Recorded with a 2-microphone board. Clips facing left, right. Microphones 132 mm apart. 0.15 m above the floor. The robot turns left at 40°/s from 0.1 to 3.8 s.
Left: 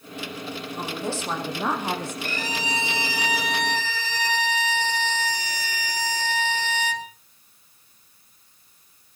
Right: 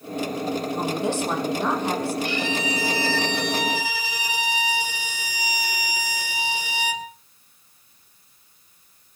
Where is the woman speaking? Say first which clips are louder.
Right 2 dB; 150° right, 5.5 m; by 2.1 s 155° left, 5.5 m.